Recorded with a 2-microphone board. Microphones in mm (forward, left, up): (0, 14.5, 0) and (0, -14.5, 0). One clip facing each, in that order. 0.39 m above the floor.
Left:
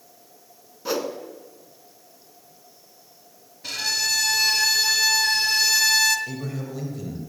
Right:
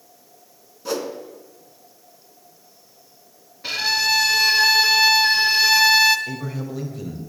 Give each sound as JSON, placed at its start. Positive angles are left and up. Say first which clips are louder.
{"t": 0.8, "sound": "a whoosh", "louder": "even", "side_deg": 10, "distance_m": 1.3}
{"t": 3.6, "sound": "a violin", "louder": "right 5 dB", "side_deg": -25, "distance_m": 1.2}
{"t": 6.3, "sound": "a man speaking", "louder": "right 2 dB", "side_deg": -10, "distance_m": 2.0}